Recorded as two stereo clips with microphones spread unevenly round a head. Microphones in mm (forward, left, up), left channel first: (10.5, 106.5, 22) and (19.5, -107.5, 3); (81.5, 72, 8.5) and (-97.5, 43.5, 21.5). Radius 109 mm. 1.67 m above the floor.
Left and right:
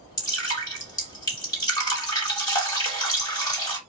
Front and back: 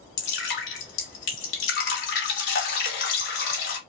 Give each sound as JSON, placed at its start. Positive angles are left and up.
{"t": 0.2, "sound": "dripping", "azimuth_deg": 25, "distance_m": 2.5}